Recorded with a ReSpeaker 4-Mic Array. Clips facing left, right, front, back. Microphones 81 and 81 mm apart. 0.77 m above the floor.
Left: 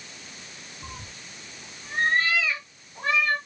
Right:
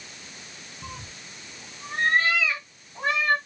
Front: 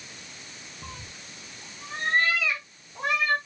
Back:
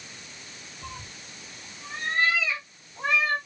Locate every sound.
0.8 s a cat meowing: 55° right, 4 m; by 3.4 s 25° right, 3 m